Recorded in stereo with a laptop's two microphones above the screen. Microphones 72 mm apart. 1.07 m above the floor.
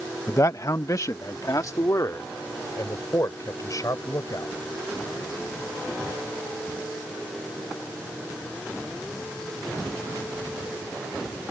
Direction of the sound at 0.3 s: 40° left (ahead or behind).